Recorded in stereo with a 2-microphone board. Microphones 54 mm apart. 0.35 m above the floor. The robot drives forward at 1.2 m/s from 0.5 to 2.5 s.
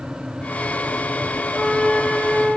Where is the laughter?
No laughter in this recording.